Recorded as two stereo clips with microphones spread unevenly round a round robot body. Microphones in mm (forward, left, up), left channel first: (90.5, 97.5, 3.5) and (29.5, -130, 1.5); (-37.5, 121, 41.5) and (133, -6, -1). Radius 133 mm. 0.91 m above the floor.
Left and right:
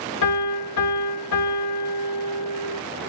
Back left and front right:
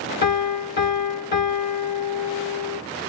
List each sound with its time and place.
0.2 s a piano: 110° left, 3 m